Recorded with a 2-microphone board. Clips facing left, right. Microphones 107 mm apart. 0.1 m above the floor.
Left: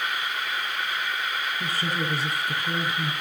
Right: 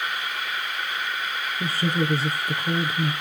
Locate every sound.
1.6 s a woman speaking: 30° right (ahead or behind), 2.5 m